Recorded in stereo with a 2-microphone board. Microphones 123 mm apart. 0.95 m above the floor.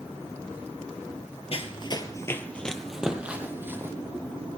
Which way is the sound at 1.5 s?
50° left (ahead or behind).